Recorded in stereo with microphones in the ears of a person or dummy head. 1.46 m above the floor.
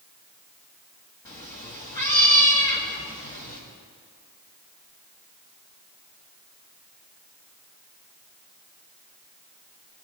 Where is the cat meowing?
10° left (ahead or behind), 0.9 m.